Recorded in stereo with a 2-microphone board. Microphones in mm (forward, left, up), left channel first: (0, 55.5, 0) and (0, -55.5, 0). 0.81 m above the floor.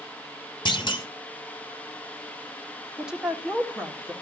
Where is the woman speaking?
10° right (ahead or behind), 1.6 m.